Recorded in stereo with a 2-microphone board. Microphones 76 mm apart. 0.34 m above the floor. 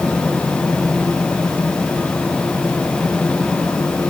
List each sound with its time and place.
Only background noise.